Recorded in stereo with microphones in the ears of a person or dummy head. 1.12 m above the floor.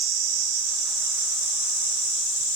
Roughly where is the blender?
No blender in this recording.